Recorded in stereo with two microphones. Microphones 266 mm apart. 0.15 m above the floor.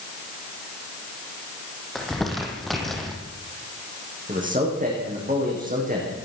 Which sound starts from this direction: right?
A man speaking, at 4.3 s.